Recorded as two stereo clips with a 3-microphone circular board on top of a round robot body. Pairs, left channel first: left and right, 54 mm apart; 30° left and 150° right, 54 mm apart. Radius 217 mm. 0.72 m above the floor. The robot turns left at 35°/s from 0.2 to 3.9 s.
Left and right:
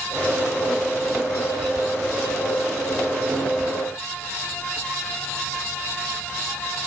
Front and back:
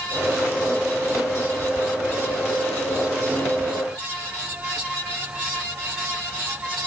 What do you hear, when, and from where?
Only background noise.